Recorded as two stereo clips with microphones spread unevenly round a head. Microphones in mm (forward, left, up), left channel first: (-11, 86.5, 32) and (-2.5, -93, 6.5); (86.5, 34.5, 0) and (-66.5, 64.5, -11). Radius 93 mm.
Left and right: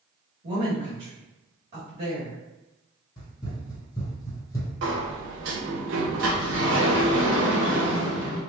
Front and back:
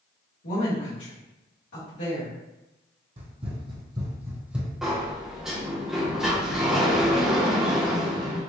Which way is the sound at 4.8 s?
100° right.